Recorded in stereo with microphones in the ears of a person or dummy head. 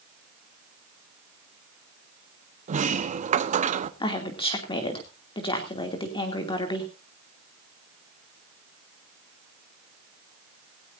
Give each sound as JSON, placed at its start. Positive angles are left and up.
{"t": 2.7, "sound": "a sliding door", "side_deg": -35, "distance_m": 1.0}
{"t": 4.0, "sound": "a woman speaking", "side_deg": 30, "distance_m": 2.5}